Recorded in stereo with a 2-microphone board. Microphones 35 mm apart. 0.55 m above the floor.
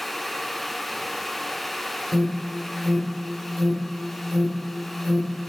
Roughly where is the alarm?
Right.